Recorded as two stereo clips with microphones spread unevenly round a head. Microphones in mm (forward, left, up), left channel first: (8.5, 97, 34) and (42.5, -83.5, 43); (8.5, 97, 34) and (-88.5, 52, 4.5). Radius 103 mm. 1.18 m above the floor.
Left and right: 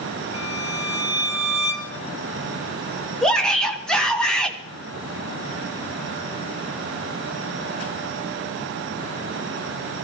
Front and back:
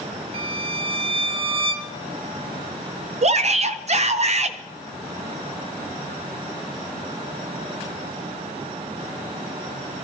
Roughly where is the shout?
Behind.